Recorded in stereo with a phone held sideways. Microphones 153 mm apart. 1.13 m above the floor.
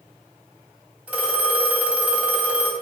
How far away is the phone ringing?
About 0.8 m.